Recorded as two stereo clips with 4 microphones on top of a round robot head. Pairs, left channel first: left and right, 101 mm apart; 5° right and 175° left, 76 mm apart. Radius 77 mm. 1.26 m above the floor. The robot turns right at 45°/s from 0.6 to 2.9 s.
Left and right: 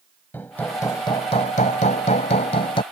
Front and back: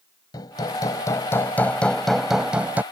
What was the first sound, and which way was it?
Hammering, 15° left.